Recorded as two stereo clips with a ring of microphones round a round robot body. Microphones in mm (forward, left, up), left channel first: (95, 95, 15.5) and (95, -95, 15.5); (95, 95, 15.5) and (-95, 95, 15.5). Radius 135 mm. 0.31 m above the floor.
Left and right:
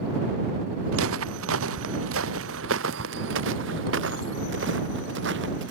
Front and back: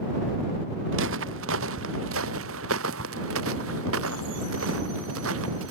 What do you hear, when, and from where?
0.9 s footsteps: 130° right; by 5.7 s 140° right